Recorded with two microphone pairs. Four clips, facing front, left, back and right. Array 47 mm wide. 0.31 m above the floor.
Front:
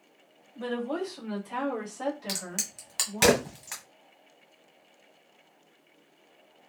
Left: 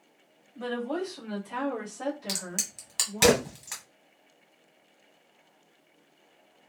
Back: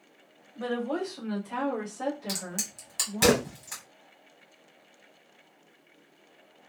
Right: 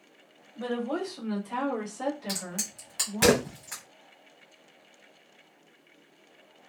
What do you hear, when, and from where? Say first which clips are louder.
0.6 s a woman speaking: right 1 dB, back 1 dB; 175° right, 1.4 m; by 3.3 s 50° right, 1.6 m
2.3 s a crack: even, even; 20° left, 1.6 m